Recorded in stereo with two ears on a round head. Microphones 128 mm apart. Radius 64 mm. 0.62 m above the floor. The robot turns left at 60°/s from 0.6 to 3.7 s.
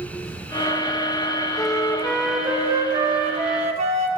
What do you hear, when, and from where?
1.6 s a flute: 40° left, 0.6 m; by 4.1 s 90° right, 0.6 m